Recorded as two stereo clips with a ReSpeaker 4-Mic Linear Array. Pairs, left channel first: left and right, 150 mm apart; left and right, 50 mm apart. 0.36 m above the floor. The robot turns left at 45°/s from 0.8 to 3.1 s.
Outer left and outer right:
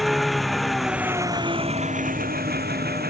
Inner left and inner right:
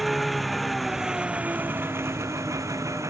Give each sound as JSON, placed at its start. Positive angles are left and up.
{"t": 0.0, "sound": "an engine running", "azimuth_deg": 0}